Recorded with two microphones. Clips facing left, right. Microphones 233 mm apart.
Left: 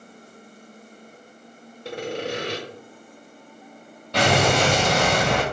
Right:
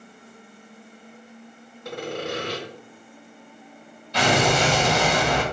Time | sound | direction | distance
1.9 | sawing | 30° left (ahead or behind) | 2 m
4.1 | an explosion | 65° left (ahead or behind) | 2.5 m